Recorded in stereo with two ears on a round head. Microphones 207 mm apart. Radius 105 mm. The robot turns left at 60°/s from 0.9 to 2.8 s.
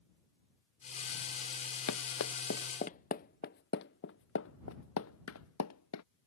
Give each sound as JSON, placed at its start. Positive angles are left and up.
{"t": 1.9, "sound": "running footsteps", "side_deg": 75}